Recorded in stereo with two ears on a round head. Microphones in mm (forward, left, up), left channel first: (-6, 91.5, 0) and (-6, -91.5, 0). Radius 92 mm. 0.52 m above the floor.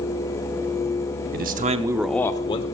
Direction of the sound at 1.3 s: 45° right (ahead or behind).